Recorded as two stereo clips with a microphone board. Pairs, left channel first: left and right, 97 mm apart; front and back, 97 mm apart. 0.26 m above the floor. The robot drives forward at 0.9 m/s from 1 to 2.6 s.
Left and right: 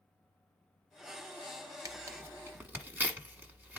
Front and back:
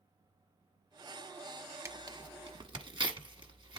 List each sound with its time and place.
1.9 s tearing paper: 130° right, 0.7 m; by 3.8 s 160° right, 1.2 m